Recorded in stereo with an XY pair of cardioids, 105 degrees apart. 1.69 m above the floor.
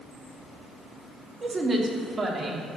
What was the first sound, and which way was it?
A woman speaking, 35° right.